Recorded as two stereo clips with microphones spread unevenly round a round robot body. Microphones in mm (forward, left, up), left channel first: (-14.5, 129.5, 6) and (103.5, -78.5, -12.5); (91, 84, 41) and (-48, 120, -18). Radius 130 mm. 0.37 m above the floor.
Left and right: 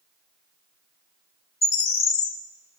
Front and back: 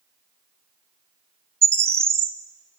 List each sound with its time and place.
1.6 s a bird: 175° left, 0.7 m